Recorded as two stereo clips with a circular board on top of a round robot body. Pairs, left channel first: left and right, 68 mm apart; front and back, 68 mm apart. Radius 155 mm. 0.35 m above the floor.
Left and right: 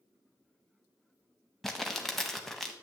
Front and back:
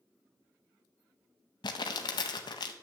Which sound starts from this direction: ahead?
Crumpling, at 1.6 s.